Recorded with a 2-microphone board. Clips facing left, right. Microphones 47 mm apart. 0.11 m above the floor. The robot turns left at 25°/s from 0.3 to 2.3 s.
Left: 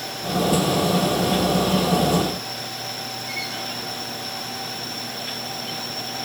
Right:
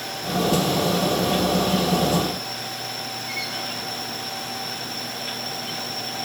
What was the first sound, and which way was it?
Only background noise.